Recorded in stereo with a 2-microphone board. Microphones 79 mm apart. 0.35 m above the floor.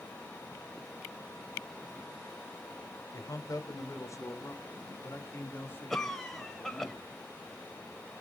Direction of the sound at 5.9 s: 5° left (ahead or behind).